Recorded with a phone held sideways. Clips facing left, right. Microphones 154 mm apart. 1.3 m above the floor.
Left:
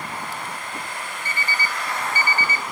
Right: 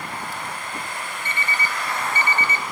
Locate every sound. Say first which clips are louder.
1.2 s an alarm clock: even; 25° right (ahead or behind), 0.7 m